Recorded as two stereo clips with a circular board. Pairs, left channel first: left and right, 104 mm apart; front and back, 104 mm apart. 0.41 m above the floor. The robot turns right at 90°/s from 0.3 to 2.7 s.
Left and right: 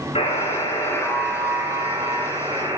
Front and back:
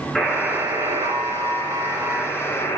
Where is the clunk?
No clunk in this recording.